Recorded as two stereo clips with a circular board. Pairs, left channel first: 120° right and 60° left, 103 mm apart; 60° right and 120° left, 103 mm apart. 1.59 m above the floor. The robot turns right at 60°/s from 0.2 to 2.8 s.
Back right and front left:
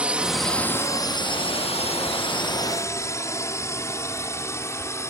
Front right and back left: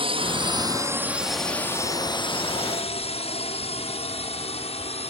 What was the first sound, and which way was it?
A drone, 140° left.